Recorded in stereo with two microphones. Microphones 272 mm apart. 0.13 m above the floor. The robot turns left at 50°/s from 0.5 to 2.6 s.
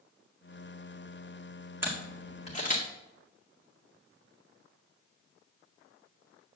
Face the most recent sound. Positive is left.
turn(degrees=30)  # may be behind; listen again after turning